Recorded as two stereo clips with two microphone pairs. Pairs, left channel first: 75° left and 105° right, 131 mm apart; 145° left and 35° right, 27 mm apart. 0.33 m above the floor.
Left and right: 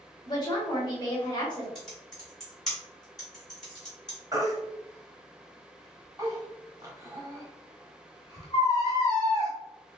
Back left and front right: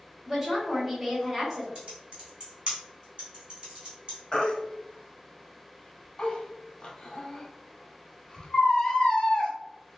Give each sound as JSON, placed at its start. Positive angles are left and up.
{"t": 0.2, "sound": "a woman speaking", "azimuth_deg": 35, "distance_m": 1.2}
{"t": 1.8, "sound": "typing on a keyboard", "azimuth_deg": -15, "distance_m": 1.6}
{"t": 4.3, "sound": "a baby crying", "azimuth_deg": -165, "distance_m": 0.9}